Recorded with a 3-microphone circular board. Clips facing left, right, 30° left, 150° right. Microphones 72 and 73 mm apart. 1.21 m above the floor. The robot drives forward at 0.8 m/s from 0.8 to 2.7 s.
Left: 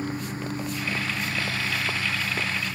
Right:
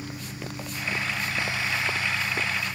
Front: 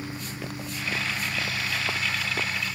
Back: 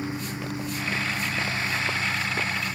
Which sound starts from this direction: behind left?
A lawn mower, at 0.0 s.